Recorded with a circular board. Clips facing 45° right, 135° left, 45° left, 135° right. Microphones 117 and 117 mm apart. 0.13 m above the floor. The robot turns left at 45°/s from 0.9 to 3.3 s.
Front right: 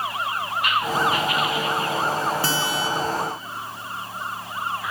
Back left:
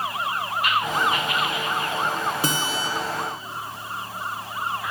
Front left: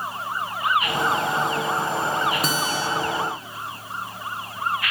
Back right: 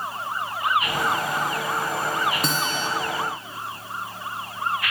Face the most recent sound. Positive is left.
turn(degrees=95)